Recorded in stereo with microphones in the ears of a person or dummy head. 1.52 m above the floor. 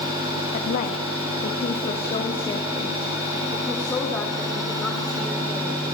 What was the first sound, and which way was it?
A woman speaking, 60° left (ahead or behind).